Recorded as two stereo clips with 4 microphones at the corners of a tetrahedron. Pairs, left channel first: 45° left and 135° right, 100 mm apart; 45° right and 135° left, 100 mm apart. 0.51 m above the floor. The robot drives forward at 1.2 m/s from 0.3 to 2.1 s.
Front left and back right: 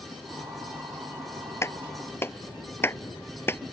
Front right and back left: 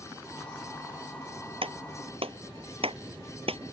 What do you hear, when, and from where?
1.6 s a clap: 110° left; by 3.7 s 115° left